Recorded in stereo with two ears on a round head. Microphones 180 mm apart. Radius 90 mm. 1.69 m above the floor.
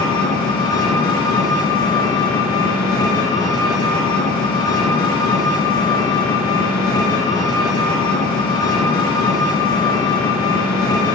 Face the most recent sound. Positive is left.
turn(degrees=20)  # may be behind; listen again after turning